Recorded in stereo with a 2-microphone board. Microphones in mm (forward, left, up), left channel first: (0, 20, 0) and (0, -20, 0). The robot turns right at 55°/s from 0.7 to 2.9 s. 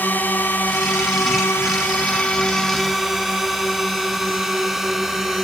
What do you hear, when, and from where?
0.0 s a drone: 50° left (ahead or behind); by 5.4 s 10° right (ahead or behind)